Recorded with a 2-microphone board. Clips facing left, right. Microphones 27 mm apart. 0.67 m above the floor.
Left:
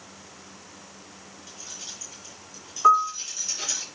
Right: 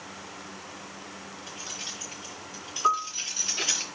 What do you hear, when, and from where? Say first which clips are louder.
1.5 s keys jangling: right 3 dB; 80° right, 8.5 m; by 3.8 s 65° right (ahead or behind), 9.5 m
2.8 s a piano: left 7 dB; 15° left (ahead or behind), 1.6 m